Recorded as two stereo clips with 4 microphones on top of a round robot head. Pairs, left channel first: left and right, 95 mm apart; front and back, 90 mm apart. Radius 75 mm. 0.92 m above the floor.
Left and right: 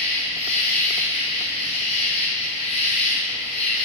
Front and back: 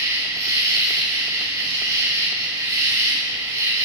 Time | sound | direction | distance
0.0 | an insect | 130° left | 3 m